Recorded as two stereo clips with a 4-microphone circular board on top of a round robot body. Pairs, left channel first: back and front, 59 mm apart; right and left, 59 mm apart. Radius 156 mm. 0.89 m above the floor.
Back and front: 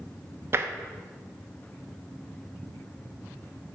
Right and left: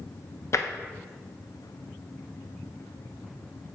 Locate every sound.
0.5 s tapping: 50° right, 0.8 m